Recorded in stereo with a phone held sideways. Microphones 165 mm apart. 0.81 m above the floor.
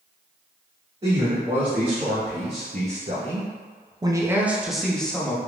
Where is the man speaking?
35° right (ahead or behind), 1.6 m; by 5.4 s 10° left (ahead or behind), 1.0 m.